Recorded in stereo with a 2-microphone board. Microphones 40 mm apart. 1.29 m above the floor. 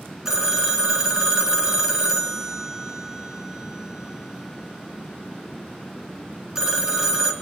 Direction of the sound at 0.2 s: 15° right (ahead or behind).